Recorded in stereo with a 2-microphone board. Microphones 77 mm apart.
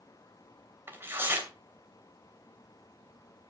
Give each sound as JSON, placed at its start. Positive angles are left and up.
{"t": 0.9, "sound": "tearing paper", "side_deg": -25, "distance_m": 2.5}